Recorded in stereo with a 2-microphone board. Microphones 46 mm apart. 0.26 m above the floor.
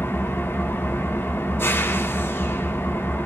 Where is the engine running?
55° left (ahead or behind), 1.0 m.